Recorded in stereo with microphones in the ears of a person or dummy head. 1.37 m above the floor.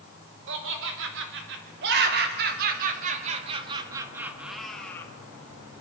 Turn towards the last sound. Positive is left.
turn(degrees=10)  # may be behind; listen again after turning